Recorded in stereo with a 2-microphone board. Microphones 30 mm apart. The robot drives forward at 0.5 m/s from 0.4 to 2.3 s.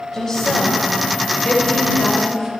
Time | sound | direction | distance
0.1 | a woman speaking | 20° left (ahead or behind) | 1.6 m